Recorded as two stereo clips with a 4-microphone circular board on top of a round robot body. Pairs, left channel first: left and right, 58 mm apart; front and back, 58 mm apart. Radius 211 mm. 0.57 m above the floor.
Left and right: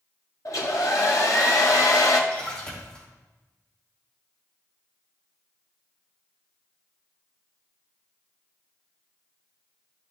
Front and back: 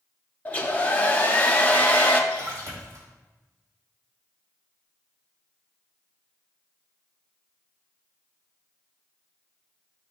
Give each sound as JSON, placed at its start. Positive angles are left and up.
{"t": 0.5, "sound": "a hair dryer", "azimuth_deg": 65, "distance_m": 1.3}
{"t": 2.3, "sound": "a splash", "azimuth_deg": 165, "distance_m": 3.0}